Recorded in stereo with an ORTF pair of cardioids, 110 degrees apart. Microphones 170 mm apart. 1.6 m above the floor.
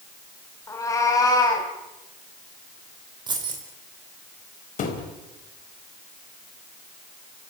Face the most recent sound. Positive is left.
turn(degrees=55)